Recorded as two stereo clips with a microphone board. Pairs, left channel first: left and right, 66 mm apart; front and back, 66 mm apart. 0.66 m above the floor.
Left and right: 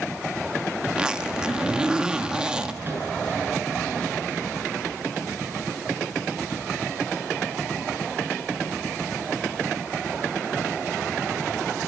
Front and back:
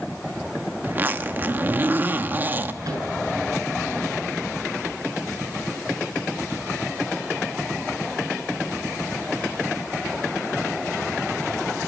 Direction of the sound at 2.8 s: 145° right.